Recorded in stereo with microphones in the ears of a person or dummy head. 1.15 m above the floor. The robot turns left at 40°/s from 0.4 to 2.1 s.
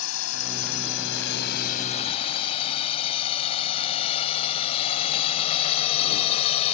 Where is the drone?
75° left (ahead or behind); by 6.7 s 40° left (ahead or behind).